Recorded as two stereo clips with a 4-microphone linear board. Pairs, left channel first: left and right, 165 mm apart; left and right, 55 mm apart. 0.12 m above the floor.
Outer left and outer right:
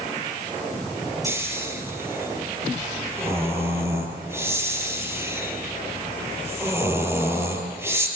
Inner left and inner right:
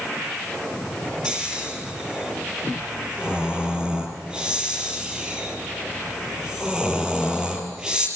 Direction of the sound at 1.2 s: 15° right (ahead or behind).